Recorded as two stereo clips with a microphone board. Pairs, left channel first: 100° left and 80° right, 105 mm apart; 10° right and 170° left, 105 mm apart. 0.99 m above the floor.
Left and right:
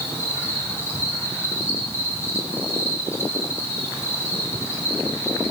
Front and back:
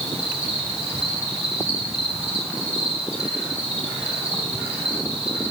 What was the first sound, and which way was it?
An insect, 160° left.